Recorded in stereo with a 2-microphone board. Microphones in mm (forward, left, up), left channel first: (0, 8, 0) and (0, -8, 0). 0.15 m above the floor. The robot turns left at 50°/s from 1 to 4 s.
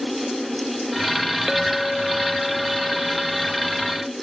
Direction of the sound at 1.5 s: 20° right (ahead or behind).